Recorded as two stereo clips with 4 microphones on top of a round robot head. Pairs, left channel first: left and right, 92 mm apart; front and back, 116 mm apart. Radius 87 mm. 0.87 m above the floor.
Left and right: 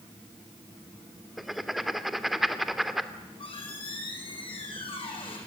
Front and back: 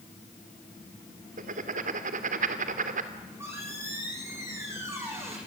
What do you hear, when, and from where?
1.4 s writing: straight behind, 1.9 m
3.1 s a squeak: 115° left, 7.5 m